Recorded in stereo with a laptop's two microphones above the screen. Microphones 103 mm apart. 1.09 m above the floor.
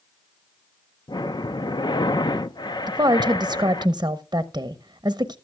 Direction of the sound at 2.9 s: 40° right (ahead or behind).